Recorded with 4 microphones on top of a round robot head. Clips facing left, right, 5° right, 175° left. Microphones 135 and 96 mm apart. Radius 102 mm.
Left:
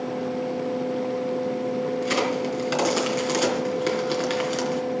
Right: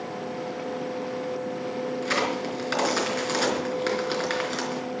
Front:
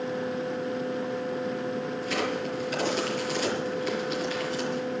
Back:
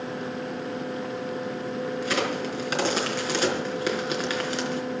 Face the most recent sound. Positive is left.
turn(degrees=165)